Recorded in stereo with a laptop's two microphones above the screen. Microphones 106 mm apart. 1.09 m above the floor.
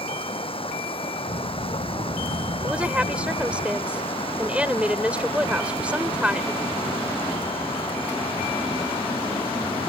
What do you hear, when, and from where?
0.0 s running water: 55° left (ahead or behind)
1.3 s a child speaking: 85° right
2.6 s a woman speaking: 10° right (ahead or behind)